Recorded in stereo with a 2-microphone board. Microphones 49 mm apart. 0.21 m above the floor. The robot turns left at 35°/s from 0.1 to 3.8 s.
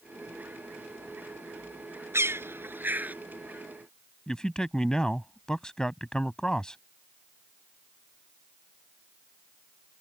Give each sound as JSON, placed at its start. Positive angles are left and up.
{"t": 2.1, "sound": "a bird", "side_deg": -65}
{"t": 4.3, "sound": "a man speaking", "side_deg": 15}